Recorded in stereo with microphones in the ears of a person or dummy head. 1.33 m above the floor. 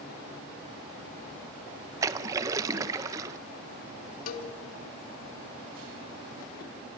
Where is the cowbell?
50° left (ahead or behind), 2.5 m.